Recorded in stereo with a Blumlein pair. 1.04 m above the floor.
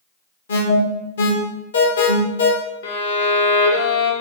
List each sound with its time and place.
0.5 s an alarm: 65° left, 0.8 m
2.8 s a violin: 60° left, 0.8 m